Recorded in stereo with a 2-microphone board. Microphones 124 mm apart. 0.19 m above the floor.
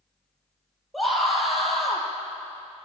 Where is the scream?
Centre (ahead or behind), 5.5 m.